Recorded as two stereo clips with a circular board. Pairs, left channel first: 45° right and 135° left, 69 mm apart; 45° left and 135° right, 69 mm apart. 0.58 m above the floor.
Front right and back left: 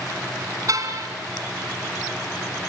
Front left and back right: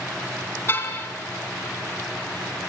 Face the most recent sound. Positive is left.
turn(degrees=100)